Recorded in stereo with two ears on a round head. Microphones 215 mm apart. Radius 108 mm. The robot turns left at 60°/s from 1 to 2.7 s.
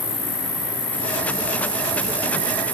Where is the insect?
10° left, 2 m; by 2.8 s 95° right, 2 m.